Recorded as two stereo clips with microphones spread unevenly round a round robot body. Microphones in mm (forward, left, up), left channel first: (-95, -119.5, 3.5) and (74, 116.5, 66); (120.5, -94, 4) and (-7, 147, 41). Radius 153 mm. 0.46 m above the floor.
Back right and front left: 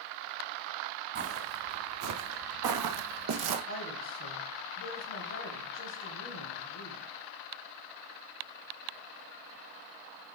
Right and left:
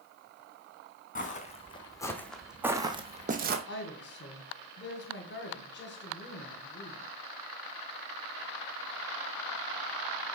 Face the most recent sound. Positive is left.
turn(degrees=-100)